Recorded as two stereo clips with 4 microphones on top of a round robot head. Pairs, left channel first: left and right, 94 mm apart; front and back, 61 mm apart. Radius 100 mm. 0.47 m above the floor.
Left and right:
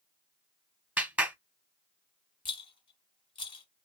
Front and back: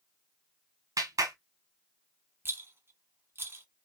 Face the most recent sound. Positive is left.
turn(degrees=125)